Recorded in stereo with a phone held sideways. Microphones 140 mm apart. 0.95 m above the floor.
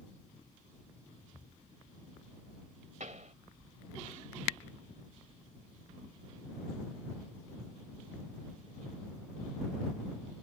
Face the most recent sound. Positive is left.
turn(degrees=-65)  # may be behind; listen again after turning